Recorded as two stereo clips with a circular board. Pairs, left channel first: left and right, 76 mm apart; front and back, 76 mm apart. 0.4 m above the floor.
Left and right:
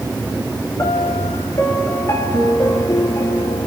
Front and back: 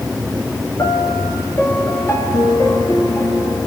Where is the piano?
40° left, 2.5 m.